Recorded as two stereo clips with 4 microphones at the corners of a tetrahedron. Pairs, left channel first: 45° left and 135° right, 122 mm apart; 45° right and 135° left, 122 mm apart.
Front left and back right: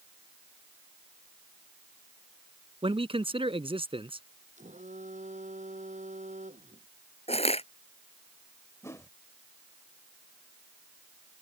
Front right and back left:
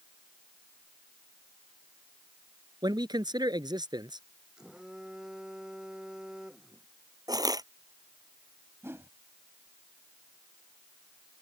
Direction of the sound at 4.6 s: 140° right.